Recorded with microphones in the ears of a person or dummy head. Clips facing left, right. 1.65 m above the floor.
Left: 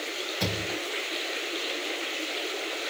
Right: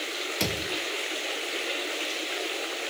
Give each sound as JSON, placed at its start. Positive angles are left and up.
{"t": 0.4, "sound": "a thud", "side_deg": -55, "distance_m": 2.0}